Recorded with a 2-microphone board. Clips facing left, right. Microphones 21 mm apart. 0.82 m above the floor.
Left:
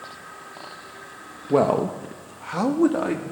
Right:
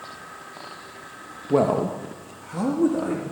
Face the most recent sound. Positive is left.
turn(degrees=40)  # may be behind; listen again after turning